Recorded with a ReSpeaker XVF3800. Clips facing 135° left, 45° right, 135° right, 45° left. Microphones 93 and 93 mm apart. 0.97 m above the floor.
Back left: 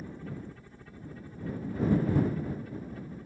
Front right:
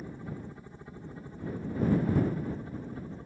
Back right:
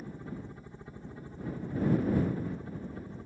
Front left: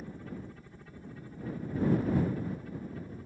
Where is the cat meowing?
I don't hear a cat meowing.